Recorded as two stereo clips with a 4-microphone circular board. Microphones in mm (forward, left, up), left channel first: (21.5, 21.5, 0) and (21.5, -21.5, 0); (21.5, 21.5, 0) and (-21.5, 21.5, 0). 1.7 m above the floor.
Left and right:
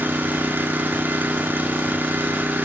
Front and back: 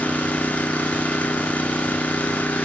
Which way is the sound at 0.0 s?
55° right.